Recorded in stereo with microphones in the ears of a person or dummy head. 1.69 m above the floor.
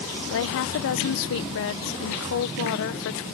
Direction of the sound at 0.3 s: 75° left (ahead or behind).